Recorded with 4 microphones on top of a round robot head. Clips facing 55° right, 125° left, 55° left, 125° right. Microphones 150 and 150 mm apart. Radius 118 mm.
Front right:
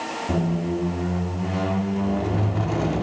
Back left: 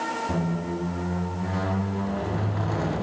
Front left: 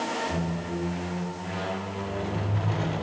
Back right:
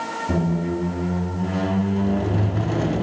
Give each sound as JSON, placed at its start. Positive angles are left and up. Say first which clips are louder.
{"t": 0.3, "sound": "a squeak", "louder": "front right 7 dB, back right 8 dB", "azimuth_deg": -120, "distance_m": 0.7}